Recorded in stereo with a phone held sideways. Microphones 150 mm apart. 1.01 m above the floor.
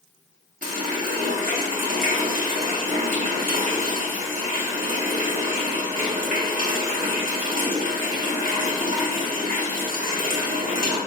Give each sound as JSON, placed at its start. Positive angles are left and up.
{"t": 0.6, "sound": "a running tap", "side_deg": -70, "distance_m": 1.3}